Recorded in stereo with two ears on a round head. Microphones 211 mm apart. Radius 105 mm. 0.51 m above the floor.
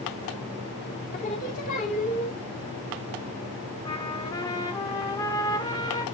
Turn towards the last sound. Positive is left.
turn(degrees=15)  # may be behind; listen again after turning